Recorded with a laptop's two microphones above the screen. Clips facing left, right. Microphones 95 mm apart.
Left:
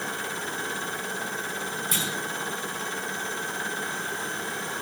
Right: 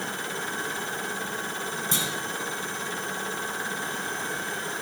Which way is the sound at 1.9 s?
25° right (ahead or behind).